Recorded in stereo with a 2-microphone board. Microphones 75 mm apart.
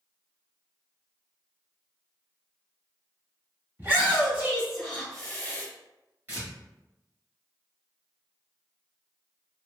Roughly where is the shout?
Right.